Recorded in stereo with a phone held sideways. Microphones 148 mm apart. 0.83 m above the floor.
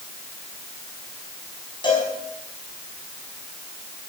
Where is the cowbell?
35° left (ahead or behind), 5.5 m.